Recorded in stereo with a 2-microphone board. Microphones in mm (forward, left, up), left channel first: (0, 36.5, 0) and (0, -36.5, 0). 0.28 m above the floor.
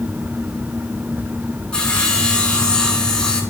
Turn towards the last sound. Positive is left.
turn(degrees=15)  # may be behind; listen again after turning